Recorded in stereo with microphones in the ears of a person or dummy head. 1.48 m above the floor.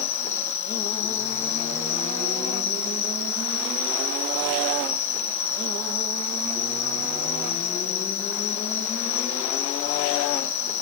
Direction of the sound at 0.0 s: 45° left (ahead or behind).